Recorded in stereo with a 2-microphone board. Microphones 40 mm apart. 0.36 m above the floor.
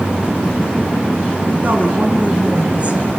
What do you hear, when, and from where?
1.6 s a woman speaking: 40° right (ahead or behind), 5.5 m; by 3.1 s 30° right (ahead or behind), 6.5 m